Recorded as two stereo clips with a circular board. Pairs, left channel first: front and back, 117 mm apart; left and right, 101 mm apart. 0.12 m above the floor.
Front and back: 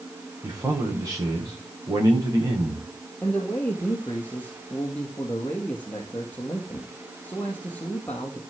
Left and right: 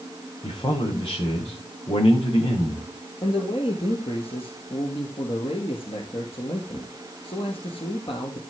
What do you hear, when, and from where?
0.4 s a man speaking: 120° left, 9.5 m
3.2 s a man speaking: 75° left, 3 m